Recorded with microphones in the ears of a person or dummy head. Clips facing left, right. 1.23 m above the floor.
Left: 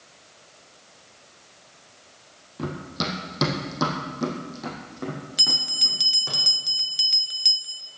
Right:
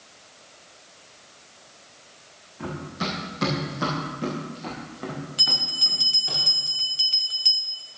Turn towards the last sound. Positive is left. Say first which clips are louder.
# even
turn(degrees=20)  # may be behind; listen again after turning